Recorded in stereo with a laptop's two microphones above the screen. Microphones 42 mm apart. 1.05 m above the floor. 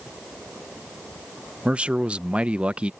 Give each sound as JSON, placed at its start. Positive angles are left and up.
{"t": 1.6, "sound": "a man speaking", "side_deg": -30}